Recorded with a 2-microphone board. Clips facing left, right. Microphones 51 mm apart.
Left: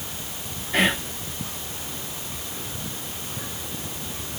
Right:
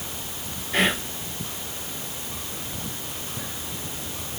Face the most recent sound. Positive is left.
turn(degrees=0)  # may be behind; listen again after turning